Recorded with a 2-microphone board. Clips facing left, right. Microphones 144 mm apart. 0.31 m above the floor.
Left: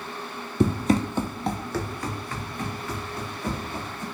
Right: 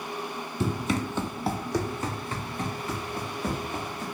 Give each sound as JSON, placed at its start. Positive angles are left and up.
{"t": 0.6, "sound": "running footsteps", "side_deg": 65, "distance_m": 0.5}